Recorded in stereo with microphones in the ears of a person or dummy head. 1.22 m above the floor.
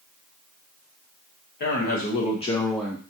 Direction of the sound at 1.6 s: 50° left (ahead or behind).